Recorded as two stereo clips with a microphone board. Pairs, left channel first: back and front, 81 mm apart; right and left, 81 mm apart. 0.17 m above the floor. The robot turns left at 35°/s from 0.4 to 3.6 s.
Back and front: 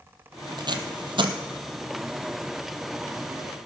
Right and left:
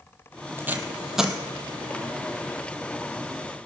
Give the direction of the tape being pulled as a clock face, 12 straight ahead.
11 o'clock.